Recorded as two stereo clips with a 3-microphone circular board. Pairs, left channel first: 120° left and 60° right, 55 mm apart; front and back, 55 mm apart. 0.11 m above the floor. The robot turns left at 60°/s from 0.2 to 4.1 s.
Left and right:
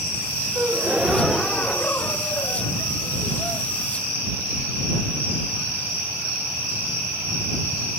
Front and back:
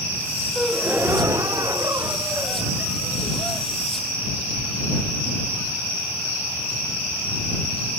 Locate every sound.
0.6 s a gasp: 110° right; by 3.7 s 65° left